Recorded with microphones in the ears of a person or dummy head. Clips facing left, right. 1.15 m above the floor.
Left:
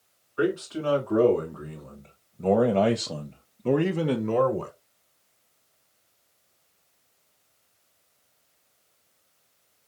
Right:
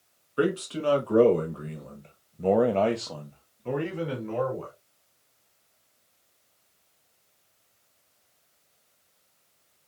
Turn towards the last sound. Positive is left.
turn(degrees=70)  # may be behind; listen again after turning